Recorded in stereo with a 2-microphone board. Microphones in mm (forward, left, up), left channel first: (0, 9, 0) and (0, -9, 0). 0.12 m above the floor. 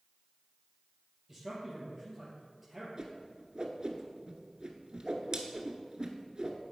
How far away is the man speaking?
About 3 m.